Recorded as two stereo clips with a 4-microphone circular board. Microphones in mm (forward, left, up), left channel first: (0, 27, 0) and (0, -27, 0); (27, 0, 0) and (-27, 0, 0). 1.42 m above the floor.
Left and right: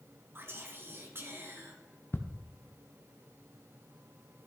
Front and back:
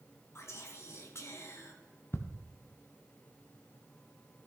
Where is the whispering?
40° right, 1.6 m.